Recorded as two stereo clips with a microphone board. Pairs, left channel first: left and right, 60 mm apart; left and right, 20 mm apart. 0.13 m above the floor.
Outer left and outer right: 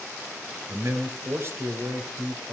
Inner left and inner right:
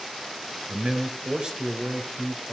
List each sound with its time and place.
0.7 s a man speaking: 40° right (ahead or behind), 1.8 m